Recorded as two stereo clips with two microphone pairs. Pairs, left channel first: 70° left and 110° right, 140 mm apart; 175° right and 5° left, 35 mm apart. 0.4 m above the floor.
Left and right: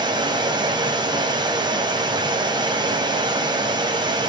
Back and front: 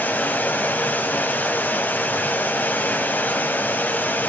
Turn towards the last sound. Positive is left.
turn(degrees=-165)